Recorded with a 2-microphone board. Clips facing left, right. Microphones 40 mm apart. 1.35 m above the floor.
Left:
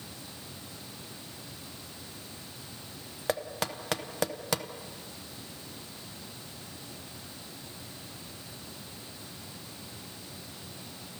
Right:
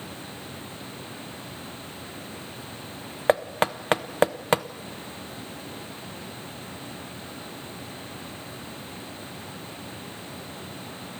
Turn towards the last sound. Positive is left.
turn(degrees=-40)  # may be behind; listen again after turning